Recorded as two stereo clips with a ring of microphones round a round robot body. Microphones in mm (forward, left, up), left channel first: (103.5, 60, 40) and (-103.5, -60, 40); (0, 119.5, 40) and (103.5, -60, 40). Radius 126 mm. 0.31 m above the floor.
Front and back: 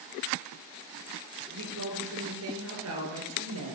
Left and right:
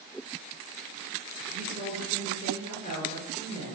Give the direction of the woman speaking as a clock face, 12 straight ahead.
4 o'clock.